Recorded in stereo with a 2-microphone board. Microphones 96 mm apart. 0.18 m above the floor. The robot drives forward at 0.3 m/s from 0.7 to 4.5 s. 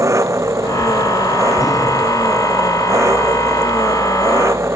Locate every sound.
0.0 s an engine running: 30° right (ahead or behind)